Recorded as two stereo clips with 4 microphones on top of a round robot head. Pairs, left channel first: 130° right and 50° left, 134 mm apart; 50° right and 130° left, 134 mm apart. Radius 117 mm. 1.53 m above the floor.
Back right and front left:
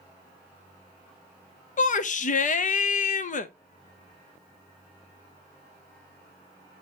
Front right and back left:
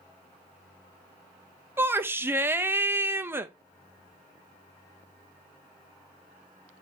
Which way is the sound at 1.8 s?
160° right.